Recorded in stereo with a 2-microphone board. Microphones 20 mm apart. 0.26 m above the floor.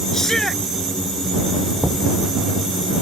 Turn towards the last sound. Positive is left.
turn(degrees=-50)  # may be behind; listen again after turning